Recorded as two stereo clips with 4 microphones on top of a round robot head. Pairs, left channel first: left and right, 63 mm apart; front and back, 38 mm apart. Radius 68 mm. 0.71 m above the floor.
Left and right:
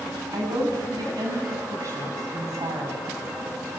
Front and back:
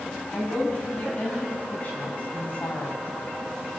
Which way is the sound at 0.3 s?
65° right.